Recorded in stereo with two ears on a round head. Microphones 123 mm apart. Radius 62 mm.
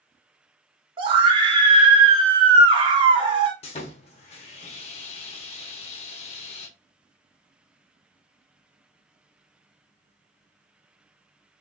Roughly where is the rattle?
No rattle in this recording.